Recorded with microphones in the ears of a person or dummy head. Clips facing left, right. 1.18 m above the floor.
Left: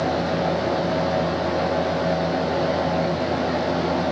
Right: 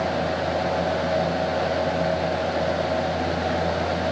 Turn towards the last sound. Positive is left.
No sound to turn to.